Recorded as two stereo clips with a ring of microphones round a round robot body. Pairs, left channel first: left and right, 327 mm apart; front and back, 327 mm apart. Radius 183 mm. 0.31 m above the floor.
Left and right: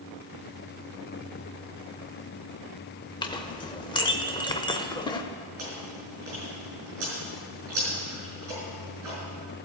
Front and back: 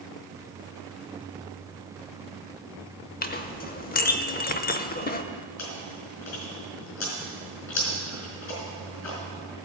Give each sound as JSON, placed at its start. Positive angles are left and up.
{"t": 3.2, "sound": "a clink", "azimuth_deg": 30, "distance_m": 0.6}
{"t": 5.6, "sound": "chewing", "azimuth_deg": -40, "distance_m": 4.5}